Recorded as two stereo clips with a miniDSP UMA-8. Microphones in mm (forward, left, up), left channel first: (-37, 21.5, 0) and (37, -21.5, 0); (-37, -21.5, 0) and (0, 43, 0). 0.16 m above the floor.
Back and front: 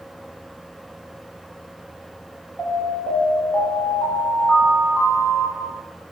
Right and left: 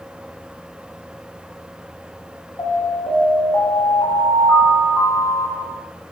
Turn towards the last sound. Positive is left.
turn(degrees=-115)